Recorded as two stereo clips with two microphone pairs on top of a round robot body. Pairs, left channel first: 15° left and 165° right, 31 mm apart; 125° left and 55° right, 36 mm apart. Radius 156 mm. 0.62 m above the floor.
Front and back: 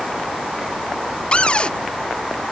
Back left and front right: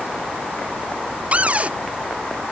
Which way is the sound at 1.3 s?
15° right.